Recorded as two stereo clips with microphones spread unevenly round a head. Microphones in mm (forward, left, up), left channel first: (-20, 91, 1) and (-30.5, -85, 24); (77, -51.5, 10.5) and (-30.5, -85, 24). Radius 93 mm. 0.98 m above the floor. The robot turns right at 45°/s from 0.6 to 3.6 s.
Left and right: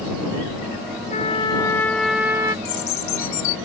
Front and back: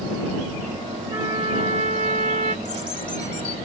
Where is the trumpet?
130° left; by 2.5 s 165° right.